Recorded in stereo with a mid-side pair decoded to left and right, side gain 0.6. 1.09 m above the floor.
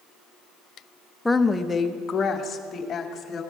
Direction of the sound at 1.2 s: 10° left.